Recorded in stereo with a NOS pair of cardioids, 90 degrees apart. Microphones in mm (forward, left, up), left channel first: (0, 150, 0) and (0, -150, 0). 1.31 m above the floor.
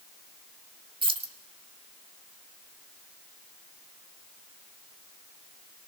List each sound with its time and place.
1.0 s keys jangling: 15° right, 1.7 m